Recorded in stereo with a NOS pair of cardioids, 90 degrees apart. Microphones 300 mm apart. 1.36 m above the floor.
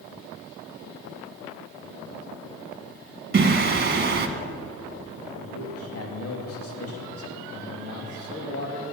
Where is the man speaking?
50° left, 2.5 m.